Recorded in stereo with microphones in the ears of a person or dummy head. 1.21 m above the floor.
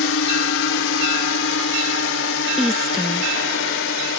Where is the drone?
60° left (ahead or behind).